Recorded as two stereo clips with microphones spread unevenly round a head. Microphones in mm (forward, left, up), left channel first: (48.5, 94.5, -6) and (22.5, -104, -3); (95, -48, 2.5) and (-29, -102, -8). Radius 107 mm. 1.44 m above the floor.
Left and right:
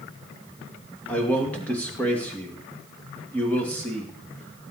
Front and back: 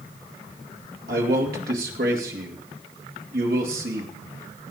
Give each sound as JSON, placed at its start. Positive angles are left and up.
{"t": 1.1, "sound": "a man speaking", "azimuth_deg": 165, "distance_m": 2.0}